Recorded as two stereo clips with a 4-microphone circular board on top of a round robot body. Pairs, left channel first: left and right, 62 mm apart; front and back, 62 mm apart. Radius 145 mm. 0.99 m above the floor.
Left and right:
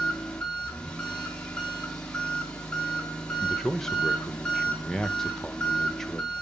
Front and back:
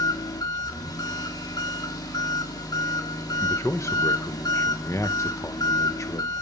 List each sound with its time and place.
0.0 s an engine running: 15° left, 1.6 m
3.4 s a man speaking: 10° left, 0.8 m